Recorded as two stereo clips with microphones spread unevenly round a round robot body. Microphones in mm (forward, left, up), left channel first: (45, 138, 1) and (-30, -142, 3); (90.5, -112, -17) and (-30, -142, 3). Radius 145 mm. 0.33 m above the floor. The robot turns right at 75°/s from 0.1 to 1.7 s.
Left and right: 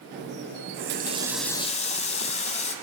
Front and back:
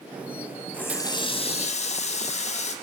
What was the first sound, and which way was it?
A running tap, 65° right.